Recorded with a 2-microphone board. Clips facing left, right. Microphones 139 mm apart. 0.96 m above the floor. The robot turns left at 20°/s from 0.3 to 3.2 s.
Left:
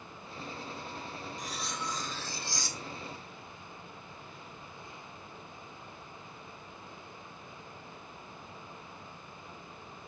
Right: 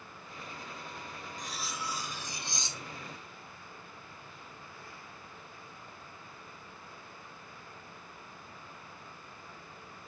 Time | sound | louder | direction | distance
1.4 | cutlery clinking | even | straight ahead | 0.8 m